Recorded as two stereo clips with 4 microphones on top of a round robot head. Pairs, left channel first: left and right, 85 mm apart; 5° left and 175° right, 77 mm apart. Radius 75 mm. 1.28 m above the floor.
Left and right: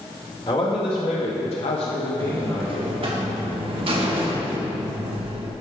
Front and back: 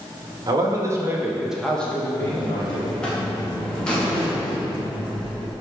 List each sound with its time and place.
0.5 s a man speaking: 145° left, 1.7 m; by 2.9 s 40° left, 1.8 m
2.2 s a buzzer: 75° right, 1.5 m